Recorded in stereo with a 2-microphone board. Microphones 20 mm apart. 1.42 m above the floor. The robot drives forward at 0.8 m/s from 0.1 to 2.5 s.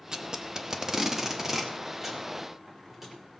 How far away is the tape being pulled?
About 0.9 m.